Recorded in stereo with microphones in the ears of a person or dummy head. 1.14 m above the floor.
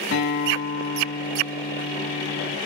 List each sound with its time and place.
0.1 s a guitar: 85° left, 5.5 m